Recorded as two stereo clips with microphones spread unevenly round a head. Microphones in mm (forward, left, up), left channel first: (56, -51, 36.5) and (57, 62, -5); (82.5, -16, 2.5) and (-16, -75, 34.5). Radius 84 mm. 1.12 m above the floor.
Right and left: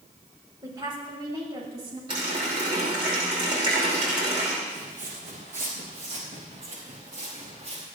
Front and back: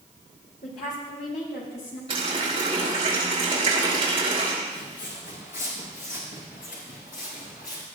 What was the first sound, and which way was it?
A woman speaking, 40° left.